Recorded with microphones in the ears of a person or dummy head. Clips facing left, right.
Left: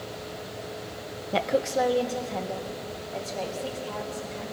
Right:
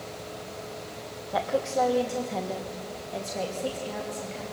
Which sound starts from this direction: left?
A woman speaking, at 1.3 s.